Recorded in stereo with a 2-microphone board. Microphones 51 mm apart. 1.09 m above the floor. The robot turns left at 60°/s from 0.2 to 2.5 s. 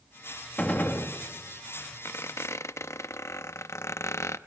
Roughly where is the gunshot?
Behind.